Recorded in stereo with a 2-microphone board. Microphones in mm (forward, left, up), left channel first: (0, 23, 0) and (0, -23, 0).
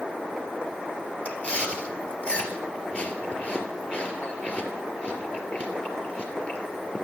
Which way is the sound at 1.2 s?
30° left (ahead or behind).